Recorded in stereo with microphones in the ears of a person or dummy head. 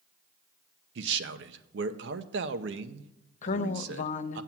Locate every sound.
0.9 s a man speaking: 65° right (ahead or behind), 0.8 m
3.4 s a man speaking: 45° left (ahead or behind), 0.7 m